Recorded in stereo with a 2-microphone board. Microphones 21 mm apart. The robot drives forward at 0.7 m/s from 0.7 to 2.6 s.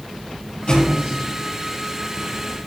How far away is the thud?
About 5.5 m.